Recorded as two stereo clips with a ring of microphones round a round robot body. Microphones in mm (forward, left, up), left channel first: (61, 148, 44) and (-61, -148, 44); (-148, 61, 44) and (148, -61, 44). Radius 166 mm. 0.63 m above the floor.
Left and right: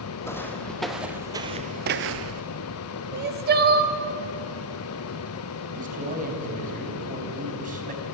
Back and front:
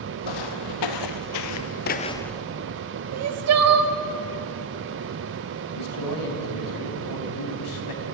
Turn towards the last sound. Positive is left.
turn(degrees=180)